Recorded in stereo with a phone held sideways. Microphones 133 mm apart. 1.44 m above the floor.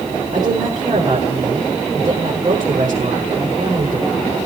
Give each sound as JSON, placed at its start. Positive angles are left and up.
{"t": 0.3, "sound": "a woman speaking", "side_deg": -30, "distance_m": 5.0}